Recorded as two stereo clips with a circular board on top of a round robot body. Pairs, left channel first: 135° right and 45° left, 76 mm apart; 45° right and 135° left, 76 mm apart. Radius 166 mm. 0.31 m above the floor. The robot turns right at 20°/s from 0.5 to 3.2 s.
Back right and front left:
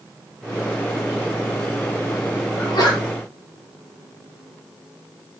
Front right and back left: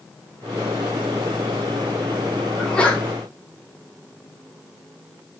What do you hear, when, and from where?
2.6 s a sneeze: 125° right, 3 m; by 3.0 s 115° right, 3 m